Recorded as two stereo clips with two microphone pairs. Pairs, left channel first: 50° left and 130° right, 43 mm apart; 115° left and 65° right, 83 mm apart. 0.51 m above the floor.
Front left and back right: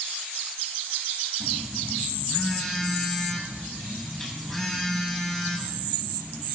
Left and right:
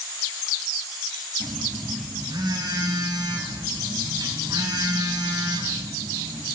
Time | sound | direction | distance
1.4 | a phone buzzing | 35° right | 4 m